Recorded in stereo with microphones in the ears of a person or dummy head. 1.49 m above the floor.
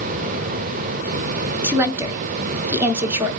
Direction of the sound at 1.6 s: 10° right (ahead or behind).